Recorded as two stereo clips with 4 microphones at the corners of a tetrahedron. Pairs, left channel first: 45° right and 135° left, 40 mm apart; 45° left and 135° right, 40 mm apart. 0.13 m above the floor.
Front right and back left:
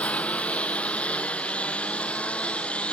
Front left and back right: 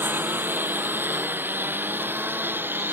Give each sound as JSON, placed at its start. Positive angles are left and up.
{"t": 0.0, "sound": "a lawn mower", "azimuth_deg": -105}